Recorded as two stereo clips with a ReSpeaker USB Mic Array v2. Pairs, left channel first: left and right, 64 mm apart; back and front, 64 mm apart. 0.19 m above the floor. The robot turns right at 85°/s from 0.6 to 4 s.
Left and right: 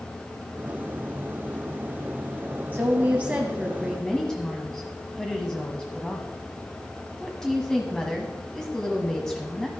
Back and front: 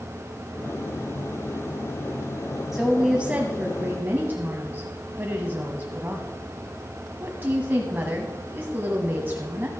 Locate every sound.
2.7 s a woman speaking: 90° right, 1.1 m; by 9.7 s 20° left, 1.1 m